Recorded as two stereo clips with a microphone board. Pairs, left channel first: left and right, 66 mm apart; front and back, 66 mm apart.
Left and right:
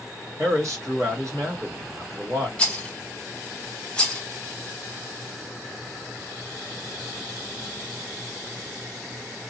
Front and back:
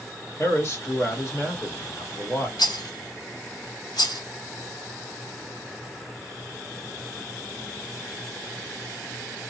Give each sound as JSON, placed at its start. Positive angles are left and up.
{"t": 0.4, "sound": "a man speaking", "azimuth_deg": -50, "distance_m": 3.0}
{"t": 2.6, "sound": "a rattle", "azimuth_deg": 15, "distance_m": 1.1}